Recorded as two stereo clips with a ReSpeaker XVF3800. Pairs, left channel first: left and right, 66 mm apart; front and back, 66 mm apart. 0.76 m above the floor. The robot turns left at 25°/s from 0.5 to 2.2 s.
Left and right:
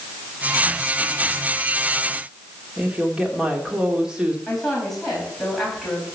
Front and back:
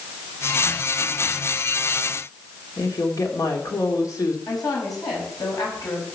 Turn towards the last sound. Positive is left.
turn(degrees=5)